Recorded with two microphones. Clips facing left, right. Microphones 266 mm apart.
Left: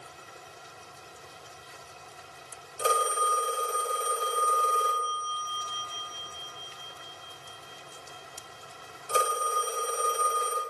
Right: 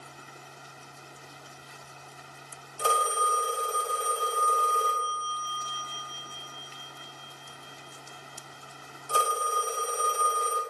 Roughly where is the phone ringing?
Left.